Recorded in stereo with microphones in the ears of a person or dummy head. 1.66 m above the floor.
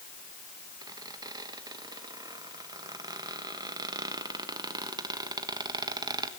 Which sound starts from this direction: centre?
A squeak, at 0.8 s.